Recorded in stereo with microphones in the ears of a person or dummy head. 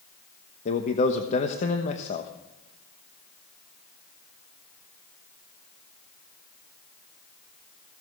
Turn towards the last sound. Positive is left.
turn(degrees=40)  # may be behind; listen again after turning